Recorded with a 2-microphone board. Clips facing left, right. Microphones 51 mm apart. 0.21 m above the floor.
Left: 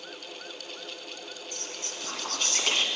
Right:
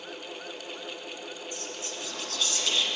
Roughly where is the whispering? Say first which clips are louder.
Right 2 dB; left.